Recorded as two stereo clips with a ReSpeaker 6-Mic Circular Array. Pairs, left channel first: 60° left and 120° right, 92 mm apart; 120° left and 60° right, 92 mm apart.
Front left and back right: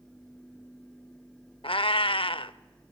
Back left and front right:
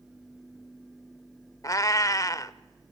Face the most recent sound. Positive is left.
turn(degrees=70)